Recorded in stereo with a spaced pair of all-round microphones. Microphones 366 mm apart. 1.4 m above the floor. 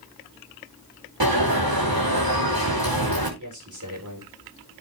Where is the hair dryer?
I don't hear a hair dryer.